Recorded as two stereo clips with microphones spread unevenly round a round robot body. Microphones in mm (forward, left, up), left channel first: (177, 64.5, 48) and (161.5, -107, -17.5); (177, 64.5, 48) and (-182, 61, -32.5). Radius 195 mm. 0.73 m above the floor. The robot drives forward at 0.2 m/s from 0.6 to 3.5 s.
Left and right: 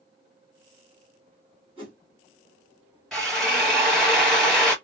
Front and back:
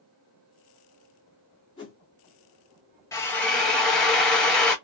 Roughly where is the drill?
Right.